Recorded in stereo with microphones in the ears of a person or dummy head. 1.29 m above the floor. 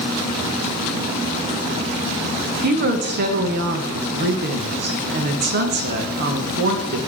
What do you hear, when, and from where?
2.6 s a woman speaking: 55° right (ahead or behind), 0.9 m